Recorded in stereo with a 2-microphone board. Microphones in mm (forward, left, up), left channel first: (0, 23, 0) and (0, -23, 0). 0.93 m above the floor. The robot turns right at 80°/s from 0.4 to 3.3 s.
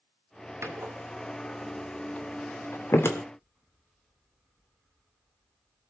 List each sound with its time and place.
0.6 s a door slam: 80° right, 2.5 m; by 3.2 s 65° left (ahead or behind), 2.5 m